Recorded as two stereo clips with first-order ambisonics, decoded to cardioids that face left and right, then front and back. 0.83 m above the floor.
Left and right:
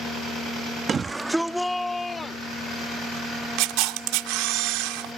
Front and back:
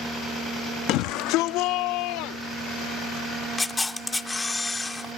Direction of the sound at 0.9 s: 25° right.